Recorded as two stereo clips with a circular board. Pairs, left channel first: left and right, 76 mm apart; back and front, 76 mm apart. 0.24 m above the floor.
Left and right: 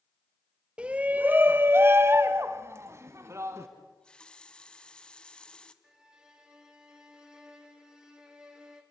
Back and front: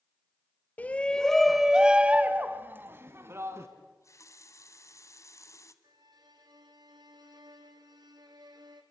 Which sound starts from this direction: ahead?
A violin, at 5.8 s.